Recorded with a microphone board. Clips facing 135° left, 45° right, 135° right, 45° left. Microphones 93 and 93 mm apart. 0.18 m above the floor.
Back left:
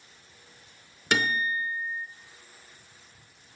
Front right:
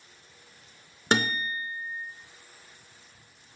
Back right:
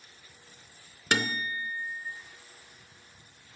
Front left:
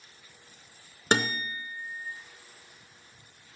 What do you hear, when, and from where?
1.1 s a guitar: 5° right, 0.8 m